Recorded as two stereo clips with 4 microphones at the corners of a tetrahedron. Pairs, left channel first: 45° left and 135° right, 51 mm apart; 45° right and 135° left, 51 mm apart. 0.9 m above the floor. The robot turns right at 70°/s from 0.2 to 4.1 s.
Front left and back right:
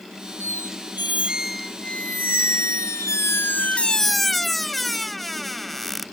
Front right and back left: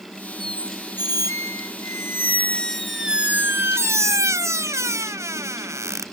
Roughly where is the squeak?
Behind right.